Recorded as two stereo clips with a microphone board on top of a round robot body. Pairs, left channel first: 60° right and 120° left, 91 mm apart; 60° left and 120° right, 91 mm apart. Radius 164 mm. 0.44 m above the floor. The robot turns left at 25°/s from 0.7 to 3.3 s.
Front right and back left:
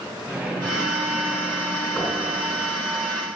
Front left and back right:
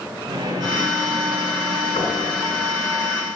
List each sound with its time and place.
0.3 s a microwave: 170° right, 6 m; by 1.9 s 165° left, 6 m
2.0 s knocking: 35° left, 6 m; by 2.2 s 30° left, 6 m